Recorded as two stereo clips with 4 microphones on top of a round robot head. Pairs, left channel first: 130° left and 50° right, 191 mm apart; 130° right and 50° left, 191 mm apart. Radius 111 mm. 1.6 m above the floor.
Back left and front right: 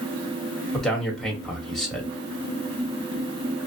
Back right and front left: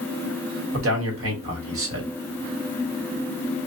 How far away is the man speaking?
About 1.4 m.